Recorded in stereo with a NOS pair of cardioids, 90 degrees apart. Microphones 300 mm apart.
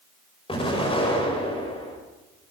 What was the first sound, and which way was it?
An explosion, 20° left.